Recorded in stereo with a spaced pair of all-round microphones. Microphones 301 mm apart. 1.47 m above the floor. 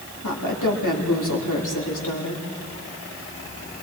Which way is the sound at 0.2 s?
85° left.